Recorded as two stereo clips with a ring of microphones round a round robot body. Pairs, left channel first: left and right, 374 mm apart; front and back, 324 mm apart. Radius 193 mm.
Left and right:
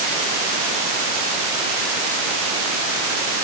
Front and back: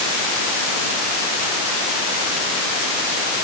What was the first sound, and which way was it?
Only background noise.